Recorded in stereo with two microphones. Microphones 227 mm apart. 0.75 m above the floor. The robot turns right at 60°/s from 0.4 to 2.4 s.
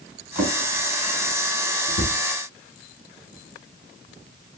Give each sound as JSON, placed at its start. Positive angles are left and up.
{"t": 0.3, "sound": "a drawer", "side_deg": -15, "distance_m": 3.0}